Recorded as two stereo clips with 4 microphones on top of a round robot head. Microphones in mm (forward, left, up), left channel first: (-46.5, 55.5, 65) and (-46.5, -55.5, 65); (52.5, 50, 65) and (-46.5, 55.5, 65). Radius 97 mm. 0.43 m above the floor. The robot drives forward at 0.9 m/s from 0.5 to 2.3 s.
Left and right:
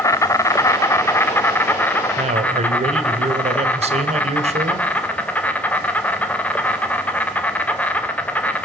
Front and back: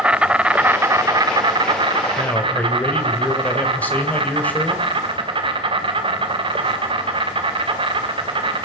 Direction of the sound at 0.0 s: 110° left.